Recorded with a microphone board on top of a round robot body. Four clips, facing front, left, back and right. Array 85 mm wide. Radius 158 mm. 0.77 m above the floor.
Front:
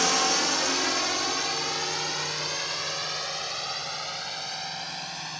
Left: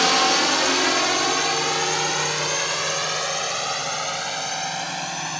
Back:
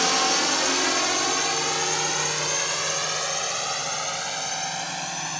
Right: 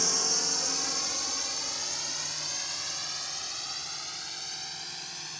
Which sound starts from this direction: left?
A drone, at 0.0 s.